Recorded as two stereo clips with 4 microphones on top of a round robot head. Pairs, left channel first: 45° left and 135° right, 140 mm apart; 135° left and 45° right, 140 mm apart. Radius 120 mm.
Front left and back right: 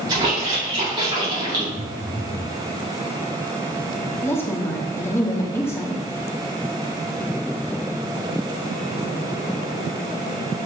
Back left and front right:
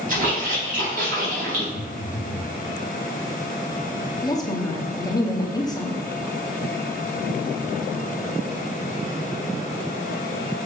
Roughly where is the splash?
Right.